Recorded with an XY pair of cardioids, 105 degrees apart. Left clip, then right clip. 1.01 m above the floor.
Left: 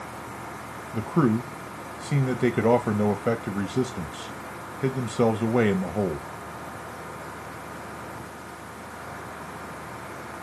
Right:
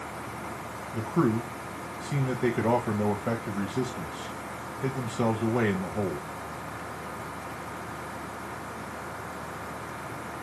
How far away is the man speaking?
About 1.2 m.